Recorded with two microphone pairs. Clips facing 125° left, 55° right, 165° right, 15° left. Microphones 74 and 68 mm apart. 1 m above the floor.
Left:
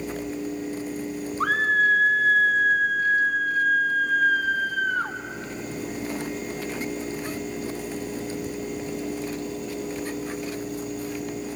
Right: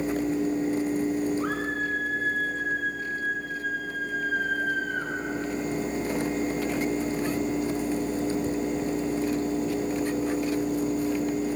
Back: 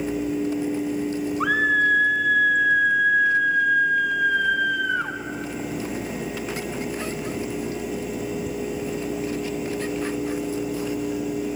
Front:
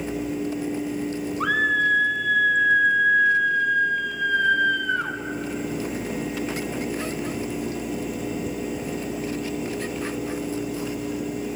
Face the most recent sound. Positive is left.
turn(degrees=115)